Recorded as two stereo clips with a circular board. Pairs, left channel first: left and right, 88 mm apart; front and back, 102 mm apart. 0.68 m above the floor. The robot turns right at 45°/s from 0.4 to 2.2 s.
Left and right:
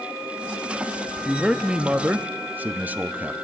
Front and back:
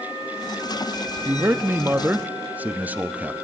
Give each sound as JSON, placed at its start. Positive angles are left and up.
{"t": 1.2, "sound": "a man speaking", "azimuth_deg": -175, "distance_m": 0.5}